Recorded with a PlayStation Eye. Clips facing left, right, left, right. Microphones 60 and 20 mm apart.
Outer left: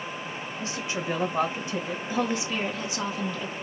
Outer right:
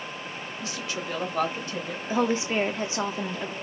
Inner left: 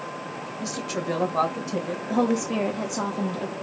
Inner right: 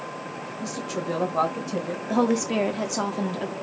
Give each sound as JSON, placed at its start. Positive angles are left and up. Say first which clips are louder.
{"t": 0.6, "sound": "a woman speaking", "louder": "outer left 2 dB, inner left 1 dB", "side_deg": 30, "distance_m": 1.0}
{"t": 2.1, "sound": "a woman speaking", "louder": "outer right 4 dB, inner right 1 dB", "side_deg": -30, "distance_m": 0.8}